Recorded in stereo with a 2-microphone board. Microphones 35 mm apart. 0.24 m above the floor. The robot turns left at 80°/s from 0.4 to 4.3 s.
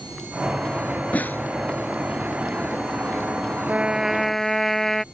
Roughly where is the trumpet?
Behind right.